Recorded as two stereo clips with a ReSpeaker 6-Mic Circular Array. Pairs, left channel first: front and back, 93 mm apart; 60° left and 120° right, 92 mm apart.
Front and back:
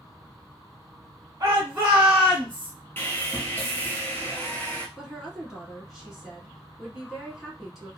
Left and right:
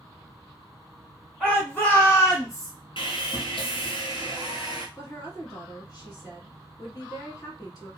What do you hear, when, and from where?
1.4 s a shout: 145° left, 1.4 m; by 2.7 s 65° left, 1.5 m
3.0 s sawing: 70° left, 0.9 m
5.0 s a woman speaking: 90° left, 1.7 m